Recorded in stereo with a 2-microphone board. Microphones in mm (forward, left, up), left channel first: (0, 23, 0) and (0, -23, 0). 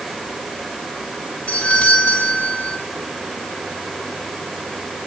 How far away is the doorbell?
About 9.5 m.